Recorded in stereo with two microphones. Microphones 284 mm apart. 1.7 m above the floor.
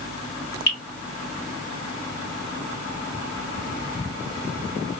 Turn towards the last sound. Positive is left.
turn(degrees=50)  # may be behind; listen again after turning